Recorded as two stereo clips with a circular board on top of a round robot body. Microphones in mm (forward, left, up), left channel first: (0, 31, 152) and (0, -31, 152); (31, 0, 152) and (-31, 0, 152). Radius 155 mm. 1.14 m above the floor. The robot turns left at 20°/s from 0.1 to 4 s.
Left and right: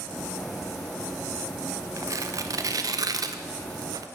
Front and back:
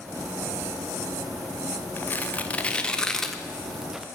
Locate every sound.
2.0 s tearing paper: 60° right, 1.1 m; by 4.1 s 100° right, 1.1 m